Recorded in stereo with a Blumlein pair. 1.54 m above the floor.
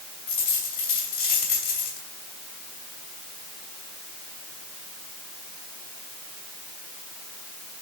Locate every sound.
0.3 s a dropped coin: 60° left, 4.5 m